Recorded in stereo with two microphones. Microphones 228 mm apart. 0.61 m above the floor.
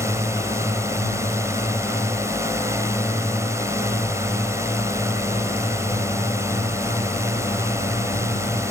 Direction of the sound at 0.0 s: 10° right (ahead or behind).